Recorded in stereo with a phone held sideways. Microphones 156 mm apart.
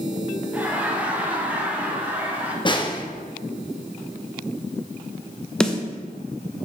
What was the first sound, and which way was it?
Laughter, 10° right (ahead or behind).